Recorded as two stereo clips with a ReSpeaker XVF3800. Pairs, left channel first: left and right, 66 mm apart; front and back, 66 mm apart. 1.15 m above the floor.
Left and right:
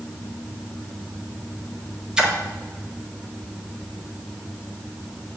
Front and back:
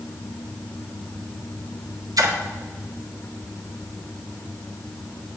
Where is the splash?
170° right, 1.4 m.